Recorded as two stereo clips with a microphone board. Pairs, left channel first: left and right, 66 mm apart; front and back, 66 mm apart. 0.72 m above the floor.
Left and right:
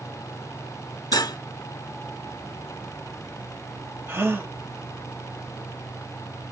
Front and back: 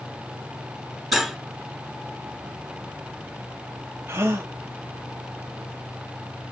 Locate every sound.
1.1 s cutlery clinking: 95° left, 0.5 m
4.1 s a gasp: 140° right, 0.9 m